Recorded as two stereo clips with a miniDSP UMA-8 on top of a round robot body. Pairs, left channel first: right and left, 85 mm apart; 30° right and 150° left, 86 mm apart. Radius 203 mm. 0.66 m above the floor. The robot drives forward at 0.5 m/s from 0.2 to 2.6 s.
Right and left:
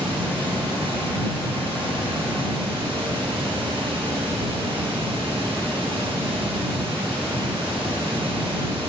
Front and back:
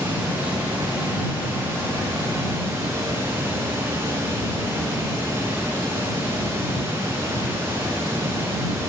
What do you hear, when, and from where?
0.0 s running water: 80° left, 9 m; by 8.9 s 85° left, 8.5 m